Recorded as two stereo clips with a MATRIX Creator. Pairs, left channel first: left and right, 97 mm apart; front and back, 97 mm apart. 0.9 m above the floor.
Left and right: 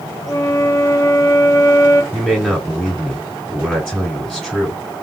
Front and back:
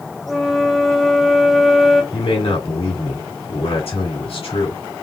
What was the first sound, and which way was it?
A flute, 90° left.